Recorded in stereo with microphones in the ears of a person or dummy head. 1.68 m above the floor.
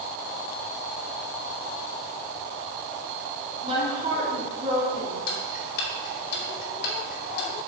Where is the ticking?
65° left (ahead or behind), 2 m.